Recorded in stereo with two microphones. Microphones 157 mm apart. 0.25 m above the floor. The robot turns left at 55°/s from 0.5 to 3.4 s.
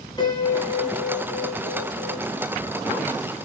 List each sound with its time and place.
0.2 s a piano: 150° left, 2 m; by 2.2 s 55° left, 2 m